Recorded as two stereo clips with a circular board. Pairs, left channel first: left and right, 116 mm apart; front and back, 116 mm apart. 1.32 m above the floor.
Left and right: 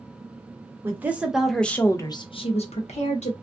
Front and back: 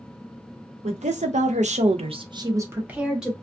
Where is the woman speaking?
160° right, 0.9 m; by 3.3 s 95° left, 0.9 m.